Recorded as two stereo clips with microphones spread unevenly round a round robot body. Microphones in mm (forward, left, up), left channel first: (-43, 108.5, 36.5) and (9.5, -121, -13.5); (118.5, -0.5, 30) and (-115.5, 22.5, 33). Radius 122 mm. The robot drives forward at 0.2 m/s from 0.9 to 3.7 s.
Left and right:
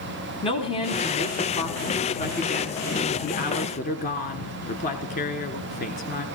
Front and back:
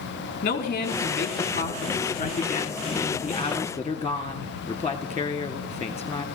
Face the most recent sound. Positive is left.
turn(degrees=65)